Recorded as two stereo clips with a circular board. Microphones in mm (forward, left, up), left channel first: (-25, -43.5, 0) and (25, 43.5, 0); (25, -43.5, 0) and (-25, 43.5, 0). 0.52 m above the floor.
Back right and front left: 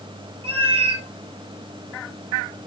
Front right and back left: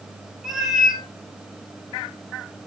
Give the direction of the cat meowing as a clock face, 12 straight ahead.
11 o'clock.